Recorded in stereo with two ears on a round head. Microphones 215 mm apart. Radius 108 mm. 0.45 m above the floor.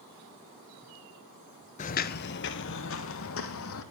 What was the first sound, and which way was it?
Footsteps, 30° left (ahead or behind).